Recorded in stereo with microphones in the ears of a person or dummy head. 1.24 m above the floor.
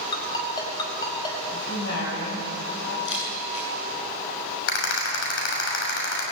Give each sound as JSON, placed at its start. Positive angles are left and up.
{"t": 0.1, "sound": "a ringtone", "side_deg": 25, "distance_m": 5.5}
{"t": 1.5, "sound": "a woman speaking", "side_deg": 70, "distance_m": 7.0}
{"t": 3.0, "sound": "a camera shutter", "side_deg": 75, "distance_m": 9.5}
{"t": 4.7, "sound": "a rattle", "side_deg": 75, "distance_m": 6.0}